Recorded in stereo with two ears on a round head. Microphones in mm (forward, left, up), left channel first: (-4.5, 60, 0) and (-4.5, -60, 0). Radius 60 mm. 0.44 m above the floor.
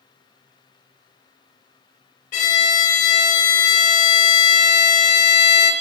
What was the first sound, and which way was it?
A violin, 55° left (ahead or behind).